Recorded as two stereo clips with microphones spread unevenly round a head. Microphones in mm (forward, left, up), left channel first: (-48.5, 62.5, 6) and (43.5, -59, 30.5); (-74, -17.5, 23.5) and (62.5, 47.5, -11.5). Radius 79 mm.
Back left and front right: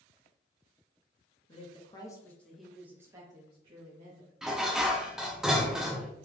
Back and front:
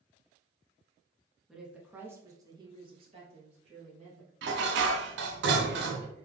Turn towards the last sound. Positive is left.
turn(degrees=35)